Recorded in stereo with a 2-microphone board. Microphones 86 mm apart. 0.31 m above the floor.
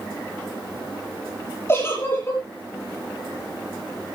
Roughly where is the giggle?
Left.